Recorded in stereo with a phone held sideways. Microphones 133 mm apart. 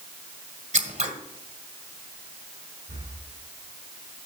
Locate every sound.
0.7 s scissors: 65° right (ahead or behind), 1.7 m
2.9 s breathing: 85° right, 7.5 m